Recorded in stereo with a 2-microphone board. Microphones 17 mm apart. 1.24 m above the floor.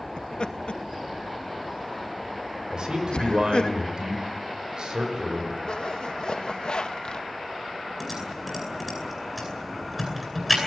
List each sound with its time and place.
0.2 s laughter: 75° left (ahead or behind), 2.5 m
2.7 s a man speaking: 60° right (ahead or behind), 5.5 m
5.6 s a zipper: 60° left (ahead or behind), 1.6 m
8.0 s typing on a keyboard: 5° right (ahead or behind), 9.5 m